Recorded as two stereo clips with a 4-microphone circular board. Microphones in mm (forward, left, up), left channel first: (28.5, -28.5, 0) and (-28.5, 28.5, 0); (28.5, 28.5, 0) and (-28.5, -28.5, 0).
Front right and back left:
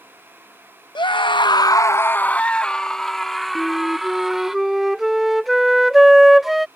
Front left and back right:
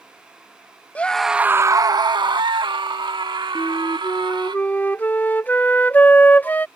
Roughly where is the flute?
Ahead left.